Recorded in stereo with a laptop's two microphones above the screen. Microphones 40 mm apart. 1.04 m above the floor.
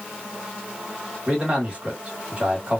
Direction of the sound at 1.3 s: 30° right (ahead or behind).